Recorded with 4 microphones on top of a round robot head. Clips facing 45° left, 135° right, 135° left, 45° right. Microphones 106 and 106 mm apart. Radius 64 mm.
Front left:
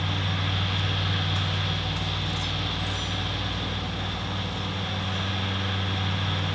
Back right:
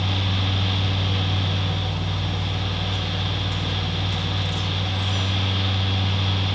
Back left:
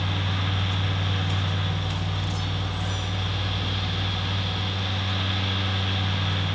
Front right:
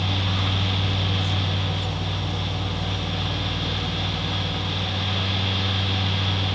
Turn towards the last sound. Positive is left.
No sound to turn to.